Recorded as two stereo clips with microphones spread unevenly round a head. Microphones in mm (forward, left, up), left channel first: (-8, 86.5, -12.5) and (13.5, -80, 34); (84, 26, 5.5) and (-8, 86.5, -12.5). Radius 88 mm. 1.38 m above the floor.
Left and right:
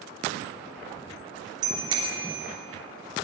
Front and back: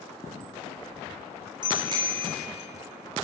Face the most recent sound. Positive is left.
turn(degrees=-150)